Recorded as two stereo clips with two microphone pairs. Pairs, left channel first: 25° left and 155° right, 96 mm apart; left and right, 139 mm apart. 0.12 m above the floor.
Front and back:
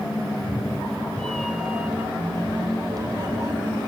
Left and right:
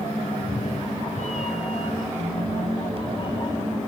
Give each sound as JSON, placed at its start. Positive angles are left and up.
{"t": 0.3, "sound": "a cat meowing", "azimuth_deg": 55, "distance_m": 1.3}